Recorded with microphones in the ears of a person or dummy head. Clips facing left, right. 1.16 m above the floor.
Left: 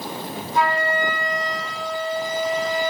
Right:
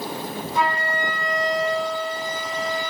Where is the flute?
80° right, 1.5 m.